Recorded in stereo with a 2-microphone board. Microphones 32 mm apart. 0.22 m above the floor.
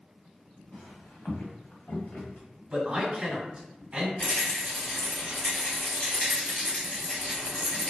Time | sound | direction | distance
0.7 | footsteps | 85° left | 1.4 m
2.7 | a man speaking | 20° right (ahead or behind) | 1.3 m
4.2 | a rattle | 50° left (ahead or behind) | 1.3 m